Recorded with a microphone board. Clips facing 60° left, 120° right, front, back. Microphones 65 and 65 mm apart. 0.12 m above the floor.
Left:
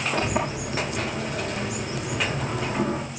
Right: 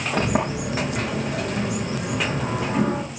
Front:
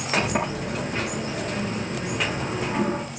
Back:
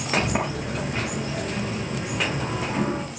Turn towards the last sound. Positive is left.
turn(degrees=-100)